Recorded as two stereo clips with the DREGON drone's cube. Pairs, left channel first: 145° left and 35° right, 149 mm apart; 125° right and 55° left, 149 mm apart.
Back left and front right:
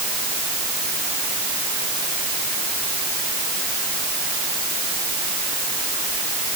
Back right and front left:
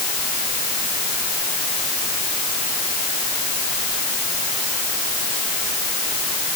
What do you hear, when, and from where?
Only background noise.